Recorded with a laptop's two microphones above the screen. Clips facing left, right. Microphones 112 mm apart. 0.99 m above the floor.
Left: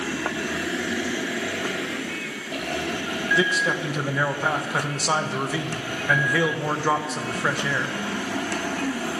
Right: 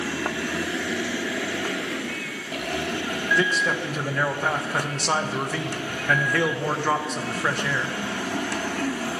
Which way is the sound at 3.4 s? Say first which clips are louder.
Left 1 dB; 5° left (ahead or behind).